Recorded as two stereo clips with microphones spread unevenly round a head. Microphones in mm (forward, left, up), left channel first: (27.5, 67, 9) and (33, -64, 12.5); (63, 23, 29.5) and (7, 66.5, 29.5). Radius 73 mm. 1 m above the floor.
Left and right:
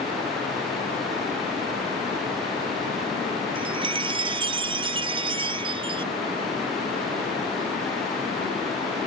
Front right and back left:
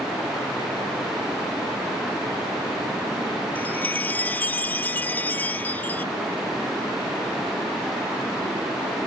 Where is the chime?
85° right.